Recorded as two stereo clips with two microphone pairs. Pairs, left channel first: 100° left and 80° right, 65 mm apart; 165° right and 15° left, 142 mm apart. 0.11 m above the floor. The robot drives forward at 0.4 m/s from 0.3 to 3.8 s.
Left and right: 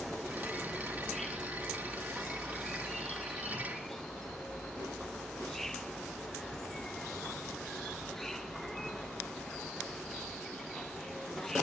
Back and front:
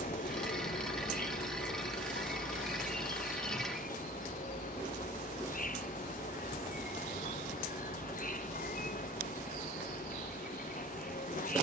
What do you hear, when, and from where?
0.0 s an insect: 175° right